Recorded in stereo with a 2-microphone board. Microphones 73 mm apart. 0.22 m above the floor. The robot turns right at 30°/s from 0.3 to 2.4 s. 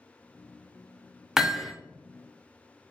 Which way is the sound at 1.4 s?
5° right (ahead or behind).